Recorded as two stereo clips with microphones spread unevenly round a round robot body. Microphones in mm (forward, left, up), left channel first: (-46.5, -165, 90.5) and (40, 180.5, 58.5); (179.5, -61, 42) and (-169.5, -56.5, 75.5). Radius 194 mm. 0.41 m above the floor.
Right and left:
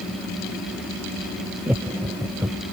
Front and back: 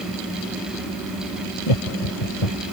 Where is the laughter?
10° right.